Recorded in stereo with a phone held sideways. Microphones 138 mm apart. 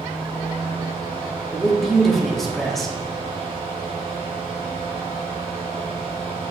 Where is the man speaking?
Centre (ahead or behind), 1.4 m.